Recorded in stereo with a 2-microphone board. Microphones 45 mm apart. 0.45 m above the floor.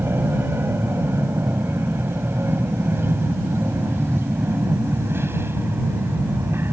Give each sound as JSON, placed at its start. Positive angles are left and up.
{"t": 0.0, "sound": "an aircraft", "side_deg": -60}